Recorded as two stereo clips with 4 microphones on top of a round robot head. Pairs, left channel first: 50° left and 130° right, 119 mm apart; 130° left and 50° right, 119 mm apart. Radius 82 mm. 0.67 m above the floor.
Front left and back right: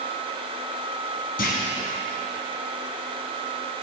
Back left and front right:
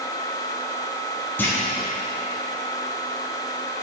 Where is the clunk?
55° left, 1.7 m.